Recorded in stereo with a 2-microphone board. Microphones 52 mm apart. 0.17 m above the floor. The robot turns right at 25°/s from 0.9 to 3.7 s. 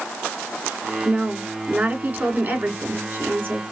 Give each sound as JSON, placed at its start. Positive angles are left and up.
{"t": 1.1, "sound": "a woman speaking", "azimuth_deg": -145, "distance_m": 2.0}